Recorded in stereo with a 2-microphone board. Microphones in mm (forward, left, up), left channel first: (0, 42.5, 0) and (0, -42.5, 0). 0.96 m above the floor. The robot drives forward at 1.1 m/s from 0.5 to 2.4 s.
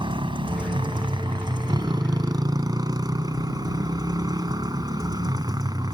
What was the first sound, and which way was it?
A motorcycle, 75° right (ahead or behind).